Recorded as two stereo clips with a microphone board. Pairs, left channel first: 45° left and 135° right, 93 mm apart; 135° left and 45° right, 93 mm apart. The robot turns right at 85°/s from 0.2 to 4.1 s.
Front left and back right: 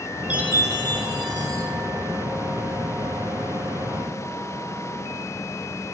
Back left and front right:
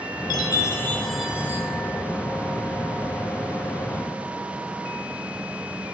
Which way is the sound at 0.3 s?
155° left.